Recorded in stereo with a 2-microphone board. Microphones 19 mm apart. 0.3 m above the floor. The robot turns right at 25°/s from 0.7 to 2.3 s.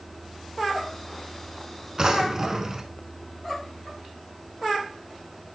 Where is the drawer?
35° right (ahead or behind), 0.6 m; by 2.9 s 25° right (ahead or behind), 0.6 m.